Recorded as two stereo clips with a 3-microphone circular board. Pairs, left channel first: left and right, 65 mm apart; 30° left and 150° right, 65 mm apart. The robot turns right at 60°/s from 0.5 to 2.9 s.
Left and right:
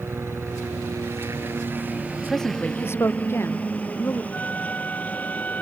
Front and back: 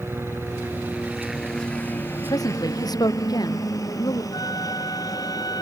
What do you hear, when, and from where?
0.0 s a helicopter: 115° right; by 5.6 s 25° left
2.3 s a woman speaking: straight ahead; by 4.2 s 40° left
4.3 s a flute: 25° left